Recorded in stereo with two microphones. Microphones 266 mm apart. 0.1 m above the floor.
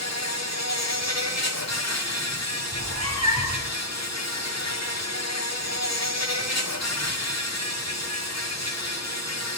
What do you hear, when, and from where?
0.0 s an insect: 75° left (ahead or behind), 3 m
2.7 s a cat meowing: 70° right (ahead or behind), 3.5 m